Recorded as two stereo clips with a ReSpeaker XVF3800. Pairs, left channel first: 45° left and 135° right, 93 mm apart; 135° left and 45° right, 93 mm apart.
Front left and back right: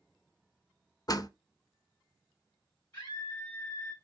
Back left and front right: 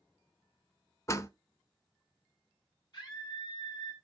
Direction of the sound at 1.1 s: 80° left.